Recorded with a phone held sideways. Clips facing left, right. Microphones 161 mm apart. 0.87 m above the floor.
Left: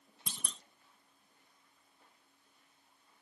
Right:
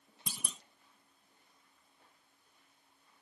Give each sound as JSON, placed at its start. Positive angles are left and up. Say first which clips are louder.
{"t": 0.3, "sound": "a clunk", "louder": "right 2 dB", "side_deg": -5}